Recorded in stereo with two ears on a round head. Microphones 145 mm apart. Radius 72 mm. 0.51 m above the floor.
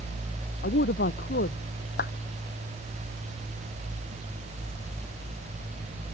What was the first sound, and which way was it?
A woman speaking, 60° left (ahead or behind).